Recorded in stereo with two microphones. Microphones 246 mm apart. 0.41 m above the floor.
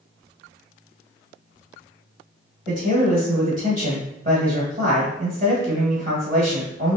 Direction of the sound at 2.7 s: 40° right (ahead or behind).